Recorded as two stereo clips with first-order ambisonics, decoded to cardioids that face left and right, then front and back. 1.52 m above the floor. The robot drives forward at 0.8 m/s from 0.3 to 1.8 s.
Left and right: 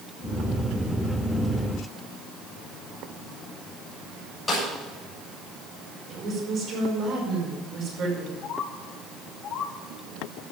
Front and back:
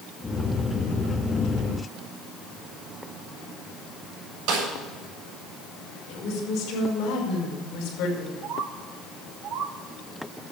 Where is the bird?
140° left, 1.4 m.